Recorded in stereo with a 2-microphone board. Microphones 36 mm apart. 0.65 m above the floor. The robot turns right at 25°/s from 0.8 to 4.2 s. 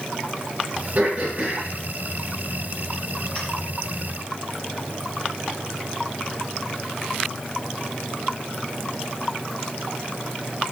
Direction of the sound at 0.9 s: 35° right (ahead or behind).